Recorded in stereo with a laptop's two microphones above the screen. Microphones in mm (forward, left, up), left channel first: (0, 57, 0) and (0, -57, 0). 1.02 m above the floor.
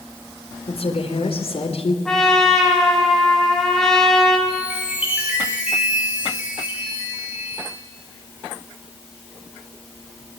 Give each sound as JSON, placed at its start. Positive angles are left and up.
{"t": 0.7, "sound": "a woman speaking", "side_deg": 60, "distance_m": 3.5}
{"t": 2.0, "sound": "a trumpet", "side_deg": 5, "distance_m": 3.5}
{"t": 4.5, "sound": "a chime", "side_deg": -10, "distance_m": 7.0}